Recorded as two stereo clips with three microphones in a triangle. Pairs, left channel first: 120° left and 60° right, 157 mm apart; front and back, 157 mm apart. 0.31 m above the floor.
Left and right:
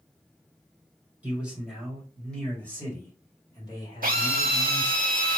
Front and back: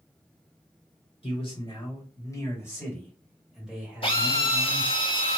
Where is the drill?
50° right, 0.7 m.